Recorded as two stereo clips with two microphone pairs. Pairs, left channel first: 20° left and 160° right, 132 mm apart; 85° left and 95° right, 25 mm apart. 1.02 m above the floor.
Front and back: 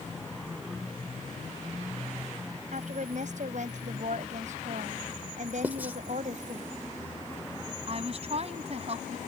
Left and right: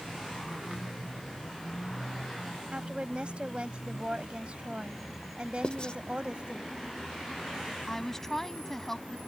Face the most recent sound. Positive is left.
turn(degrees=160)